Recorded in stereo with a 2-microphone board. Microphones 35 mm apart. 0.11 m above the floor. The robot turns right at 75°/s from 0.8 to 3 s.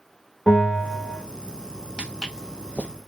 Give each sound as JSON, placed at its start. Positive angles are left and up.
{"t": 0.5, "sound": "a bell", "side_deg": -20, "distance_m": 1.4}
{"t": 2.0, "sound": "footsteps", "side_deg": -25, "distance_m": 0.8}